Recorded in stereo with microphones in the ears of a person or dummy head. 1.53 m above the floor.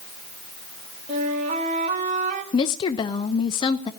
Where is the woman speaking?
25° left (ahead or behind), 0.5 m.